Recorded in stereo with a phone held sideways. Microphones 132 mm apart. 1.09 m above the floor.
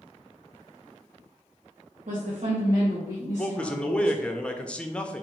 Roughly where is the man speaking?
Centre.